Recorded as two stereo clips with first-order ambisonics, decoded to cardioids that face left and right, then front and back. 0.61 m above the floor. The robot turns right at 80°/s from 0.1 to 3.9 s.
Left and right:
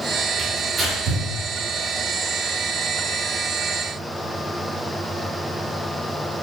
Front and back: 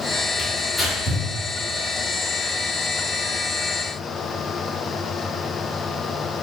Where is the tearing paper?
105° right, 1.2 m; by 1.2 s 40° right, 1.2 m.